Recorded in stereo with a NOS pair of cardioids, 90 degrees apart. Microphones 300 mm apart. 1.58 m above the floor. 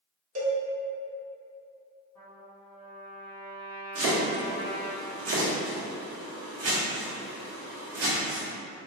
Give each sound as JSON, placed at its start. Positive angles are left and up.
{"t": 0.3, "sound": "a cowbell", "azimuth_deg": -55, "distance_m": 1.3}
{"t": 2.1, "sound": "a trumpet", "azimuth_deg": 5, "distance_m": 1.3}
{"t": 4.0, "sound": "chopping", "azimuth_deg": -50, "distance_m": 1.1}